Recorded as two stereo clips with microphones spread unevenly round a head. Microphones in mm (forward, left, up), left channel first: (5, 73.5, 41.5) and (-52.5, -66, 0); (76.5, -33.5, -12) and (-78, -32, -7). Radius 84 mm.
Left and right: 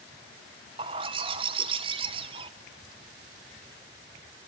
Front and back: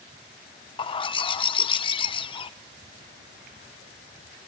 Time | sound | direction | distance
0.8 | a bird | 45° right | 0.8 m